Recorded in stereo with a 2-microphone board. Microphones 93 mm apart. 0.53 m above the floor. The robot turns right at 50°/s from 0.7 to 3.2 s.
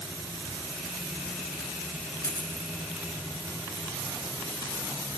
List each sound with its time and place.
2.2 s a dropped coin: 30° left (ahead or behind), 2 m; by 2.7 s 55° left (ahead or behind), 2 m